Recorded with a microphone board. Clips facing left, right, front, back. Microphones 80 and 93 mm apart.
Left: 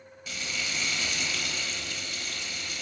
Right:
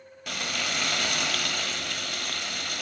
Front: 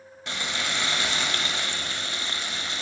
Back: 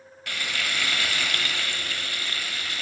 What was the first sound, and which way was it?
Frying, 65° right.